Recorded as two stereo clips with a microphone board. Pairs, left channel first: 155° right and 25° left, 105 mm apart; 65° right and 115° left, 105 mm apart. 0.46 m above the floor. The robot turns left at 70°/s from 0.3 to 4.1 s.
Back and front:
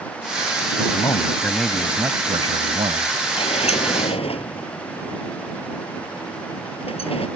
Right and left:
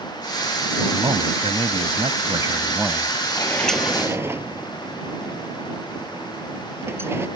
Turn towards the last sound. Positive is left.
turn(degrees=180)